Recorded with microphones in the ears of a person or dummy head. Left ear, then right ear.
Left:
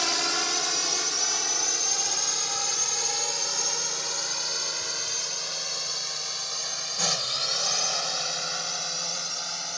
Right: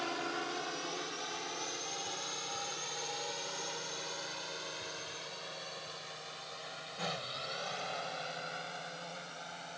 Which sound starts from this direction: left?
A drone, at 0.0 s.